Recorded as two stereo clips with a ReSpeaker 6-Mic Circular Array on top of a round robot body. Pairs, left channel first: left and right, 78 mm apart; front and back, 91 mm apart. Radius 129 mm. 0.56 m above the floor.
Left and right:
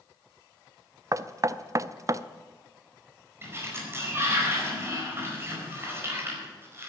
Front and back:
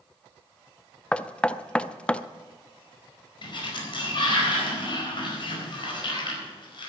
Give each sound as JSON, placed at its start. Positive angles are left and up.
{"t": 1.1, "sound": "knocking", "azimuth_deg": -75, "distance_m": 0.6}
{"t": 3.4, "sound": "a sliding door", "azimuth_deg": -30, "distance_m": 4.5}